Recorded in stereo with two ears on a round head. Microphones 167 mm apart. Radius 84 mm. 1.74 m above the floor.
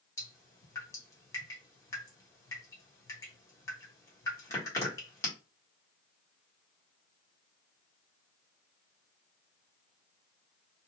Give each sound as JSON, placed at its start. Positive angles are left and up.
{"t": 0.2, "sound": "dripping", "side_deg": 15, "distance_m": 1.4}